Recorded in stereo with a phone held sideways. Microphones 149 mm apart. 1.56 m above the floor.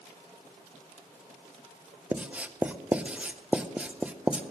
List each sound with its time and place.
2.1 s writing: 10° right (ahead or behind), 0.7 m